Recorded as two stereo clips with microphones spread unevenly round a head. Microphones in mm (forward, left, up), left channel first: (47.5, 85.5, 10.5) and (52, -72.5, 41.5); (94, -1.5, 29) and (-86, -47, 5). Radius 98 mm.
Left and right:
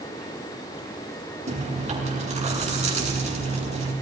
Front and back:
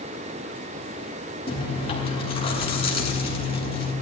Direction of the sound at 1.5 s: 45° right.